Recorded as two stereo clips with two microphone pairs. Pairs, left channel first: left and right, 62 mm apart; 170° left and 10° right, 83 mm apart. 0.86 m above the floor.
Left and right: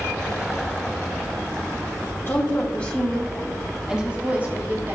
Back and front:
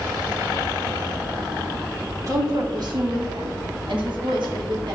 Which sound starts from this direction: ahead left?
A woman speaking, at 2.3 s.